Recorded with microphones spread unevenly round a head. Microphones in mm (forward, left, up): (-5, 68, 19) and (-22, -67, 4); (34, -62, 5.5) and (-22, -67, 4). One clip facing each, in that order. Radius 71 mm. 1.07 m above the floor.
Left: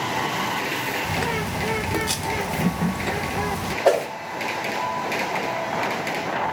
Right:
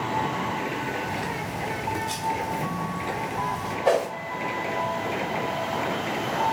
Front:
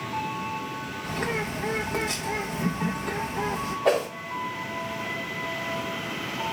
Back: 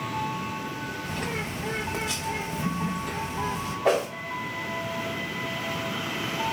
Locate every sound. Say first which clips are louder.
1.0 s a bird: left 4 dB, front 5 dB; 75° left, 0.8 m
3.9 s a whoosh: left 3 dB, even; 100° left, 2 m